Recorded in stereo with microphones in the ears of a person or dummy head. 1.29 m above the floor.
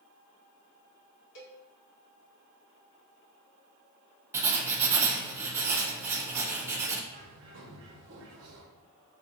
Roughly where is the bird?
Right.